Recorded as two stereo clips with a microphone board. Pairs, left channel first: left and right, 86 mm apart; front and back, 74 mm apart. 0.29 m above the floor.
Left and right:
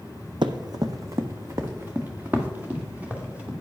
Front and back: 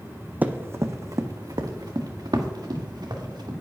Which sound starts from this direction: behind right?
Running footsteps, at 0.4 s.